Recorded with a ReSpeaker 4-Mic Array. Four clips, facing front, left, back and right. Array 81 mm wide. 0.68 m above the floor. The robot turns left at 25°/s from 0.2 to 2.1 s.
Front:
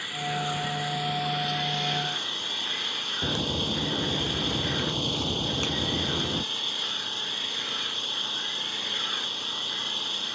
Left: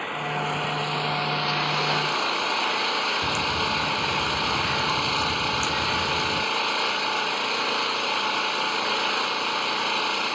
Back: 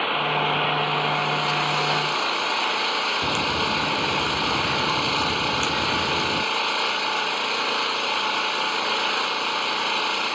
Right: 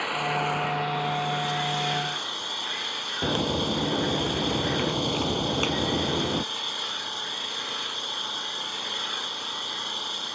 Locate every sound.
0.0 s an engine running: 175° right; by 10.4 s 140° left
3.2 s a crack: 95° right